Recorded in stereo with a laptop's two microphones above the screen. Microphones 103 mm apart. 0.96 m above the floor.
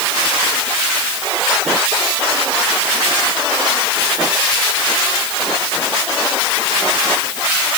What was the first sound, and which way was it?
Only background noise.